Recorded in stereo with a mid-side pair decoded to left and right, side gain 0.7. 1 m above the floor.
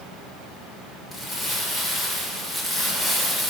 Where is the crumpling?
20° left, 1.8 m.